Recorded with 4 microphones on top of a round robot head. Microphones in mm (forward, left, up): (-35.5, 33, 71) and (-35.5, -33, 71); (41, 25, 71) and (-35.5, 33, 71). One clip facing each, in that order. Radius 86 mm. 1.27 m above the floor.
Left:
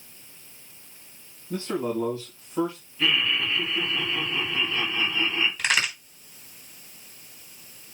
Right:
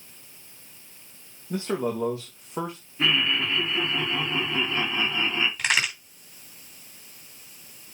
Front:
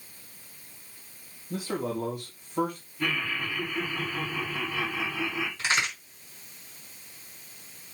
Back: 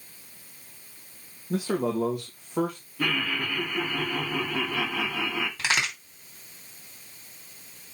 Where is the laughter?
150° right, 3.5 m.